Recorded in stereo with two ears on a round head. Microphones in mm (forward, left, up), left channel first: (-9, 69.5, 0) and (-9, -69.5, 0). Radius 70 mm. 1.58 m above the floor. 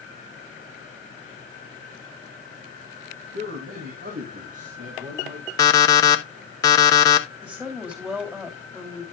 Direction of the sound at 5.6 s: 25° left (ahead or behind).